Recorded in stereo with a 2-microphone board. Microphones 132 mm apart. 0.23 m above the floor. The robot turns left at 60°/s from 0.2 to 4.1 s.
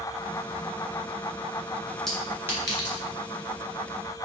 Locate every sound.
2.1 s a clink: 5° left (ahead or behind), 1.7 m; by 3.0 s 45° right (ahead or behind), 1.7 m